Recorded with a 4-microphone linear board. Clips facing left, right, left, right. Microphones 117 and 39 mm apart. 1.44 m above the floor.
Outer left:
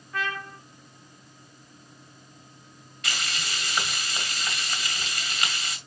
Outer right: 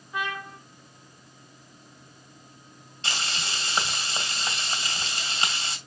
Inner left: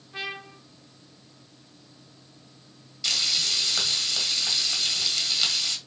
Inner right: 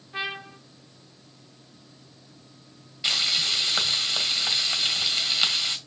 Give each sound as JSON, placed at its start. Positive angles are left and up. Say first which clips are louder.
{"t": 0.1, "sound": "a trumpet", "louder": "even, inner right 3 dB", "side_deg": -15, "distance_m": 0.9}
{"t": 3.0, "sound": "frying", "louder": "outer right 1 dB, inner right 2 dB", "side_deg": -30, "distance_m": 2.0}